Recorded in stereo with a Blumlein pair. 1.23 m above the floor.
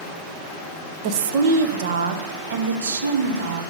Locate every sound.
1.0 s a woman speaking: 40° right, 0.9 m; by 3.6 s 70° right, 2.5 m